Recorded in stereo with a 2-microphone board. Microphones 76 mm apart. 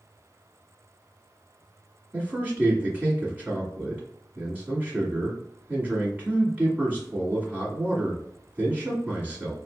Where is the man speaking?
20° right (ahead or behind), 1.5 m.